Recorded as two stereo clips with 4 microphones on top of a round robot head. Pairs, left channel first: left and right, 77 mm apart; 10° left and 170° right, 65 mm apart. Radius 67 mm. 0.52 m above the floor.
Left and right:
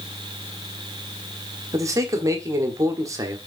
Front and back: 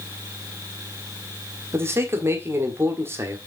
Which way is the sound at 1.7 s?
125° right.